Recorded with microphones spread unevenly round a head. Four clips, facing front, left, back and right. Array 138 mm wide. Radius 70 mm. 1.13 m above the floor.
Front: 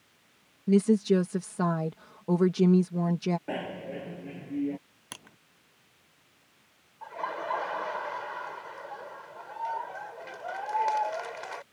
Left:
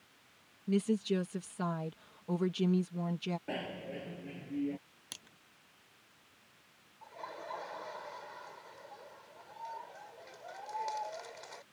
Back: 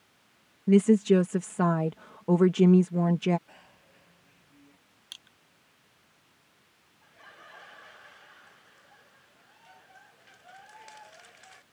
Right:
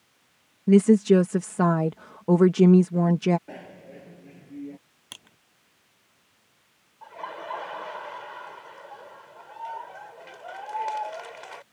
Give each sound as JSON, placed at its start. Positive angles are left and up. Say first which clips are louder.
{"t": 0.7, "sound": "a woman speaking", "louder": "right 15 dB, back 2 dB", "azimuth_deg": -95}
{"t": 3.5, "sound": "a bicycle bell", "louder": "left 2 dB, front 23 dB", "azimuth_deg": 5}
{"t": 5.1, "sound": "crushing", "louder": "right 6 dB, front 10 dB", "azimuth_deg": -20}
{"t": 7.0, "sound": "laughter", "louder": "right 9 dB, front 20 dB", "azimuth_deg": -30}